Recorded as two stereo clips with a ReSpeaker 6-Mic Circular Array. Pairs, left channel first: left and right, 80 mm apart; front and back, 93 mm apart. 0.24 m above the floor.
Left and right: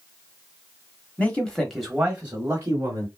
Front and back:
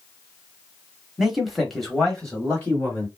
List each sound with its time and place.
1.2 s a man speaking: 105° left, 1.0 m; by 3.1 s 65° right, 1.3 m